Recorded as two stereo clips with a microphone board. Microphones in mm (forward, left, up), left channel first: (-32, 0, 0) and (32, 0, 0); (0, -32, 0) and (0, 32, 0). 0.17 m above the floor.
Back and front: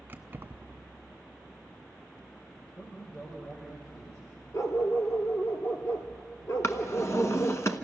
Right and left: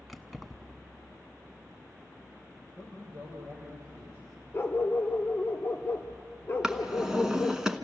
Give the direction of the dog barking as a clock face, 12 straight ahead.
5 o'clock.